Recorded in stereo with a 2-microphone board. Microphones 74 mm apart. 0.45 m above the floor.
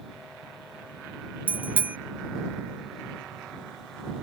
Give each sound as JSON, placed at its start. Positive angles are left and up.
{"t": 1.5, "sound": "a bicycle bell", "side_deg": -20}